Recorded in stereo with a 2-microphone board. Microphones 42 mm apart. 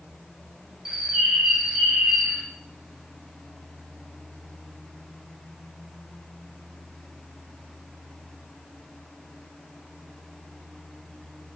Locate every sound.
0.8 s a bird: 10° right (ahead or behind), 0.7 m